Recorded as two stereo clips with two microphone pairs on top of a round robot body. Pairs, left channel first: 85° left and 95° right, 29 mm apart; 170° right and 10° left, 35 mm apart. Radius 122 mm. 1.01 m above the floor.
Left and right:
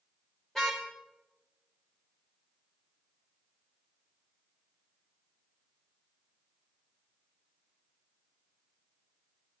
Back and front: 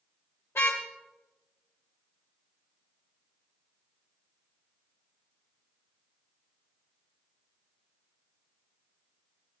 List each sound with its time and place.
0.6 s a car horn: 165° left, 2 m